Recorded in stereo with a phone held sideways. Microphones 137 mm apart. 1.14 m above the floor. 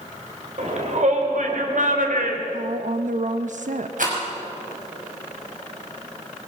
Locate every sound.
0.6 s a shout: 60° right (ahead or behind), 4 m; by 2.4 s 85° right, 3 m
2.5 s a woman speaking: 65° right (ahead or behind), 0.9 m
4.0 s a rattle: 75° right (ahead or behind), 6 m